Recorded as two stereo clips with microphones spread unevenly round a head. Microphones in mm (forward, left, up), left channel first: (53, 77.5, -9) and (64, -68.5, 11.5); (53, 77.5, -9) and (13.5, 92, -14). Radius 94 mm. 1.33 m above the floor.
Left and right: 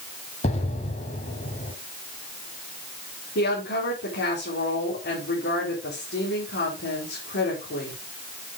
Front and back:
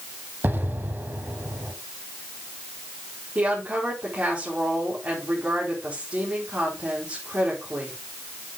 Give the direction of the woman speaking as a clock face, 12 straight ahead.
9 o'clock.